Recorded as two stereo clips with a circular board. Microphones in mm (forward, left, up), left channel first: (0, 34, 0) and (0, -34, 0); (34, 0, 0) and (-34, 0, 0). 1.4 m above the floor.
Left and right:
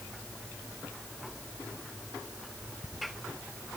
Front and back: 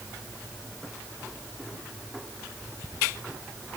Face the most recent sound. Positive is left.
No sound to turn to.